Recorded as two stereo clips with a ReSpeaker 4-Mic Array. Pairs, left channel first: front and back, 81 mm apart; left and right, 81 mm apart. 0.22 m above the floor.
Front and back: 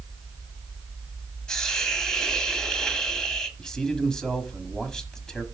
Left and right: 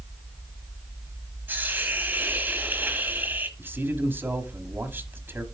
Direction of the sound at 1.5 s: 70° right.